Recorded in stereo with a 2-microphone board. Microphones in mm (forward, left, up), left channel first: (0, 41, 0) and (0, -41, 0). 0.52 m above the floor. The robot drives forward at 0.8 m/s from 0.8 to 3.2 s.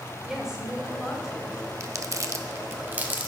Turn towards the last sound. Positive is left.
turn(degrees=-20)  # may be behind; listen again after turning